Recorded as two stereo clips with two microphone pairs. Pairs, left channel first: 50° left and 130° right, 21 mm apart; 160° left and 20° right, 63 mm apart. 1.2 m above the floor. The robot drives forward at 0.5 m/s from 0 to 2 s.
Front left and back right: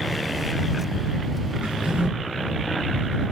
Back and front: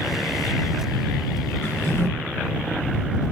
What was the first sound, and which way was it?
A drawer, 150° right.